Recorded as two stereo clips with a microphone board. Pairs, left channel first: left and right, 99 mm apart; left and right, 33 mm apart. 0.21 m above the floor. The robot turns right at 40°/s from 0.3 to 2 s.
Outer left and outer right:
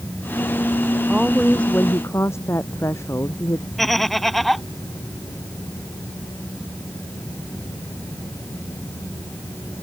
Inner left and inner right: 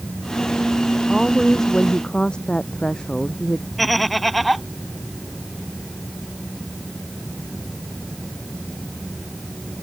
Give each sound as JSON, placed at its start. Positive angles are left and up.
{"t": 1.1, "sound": "a woman speaking", "azimuth_deg": -10}
{"t": 3.8, "sound": "laughter", "side_deg": 0}